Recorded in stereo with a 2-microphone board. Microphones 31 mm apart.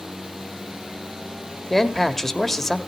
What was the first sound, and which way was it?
A man speaking, 10° left (ahead or behind).